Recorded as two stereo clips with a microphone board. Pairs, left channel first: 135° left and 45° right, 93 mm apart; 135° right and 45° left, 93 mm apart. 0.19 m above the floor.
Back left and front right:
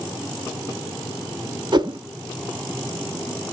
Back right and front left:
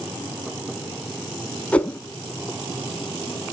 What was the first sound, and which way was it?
A whoosh, 60° right.